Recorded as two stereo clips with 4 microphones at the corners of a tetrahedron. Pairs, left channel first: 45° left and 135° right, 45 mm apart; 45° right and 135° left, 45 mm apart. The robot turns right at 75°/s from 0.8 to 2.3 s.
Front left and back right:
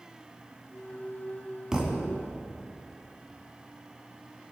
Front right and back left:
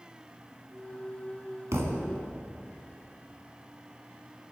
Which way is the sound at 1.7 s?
150° left.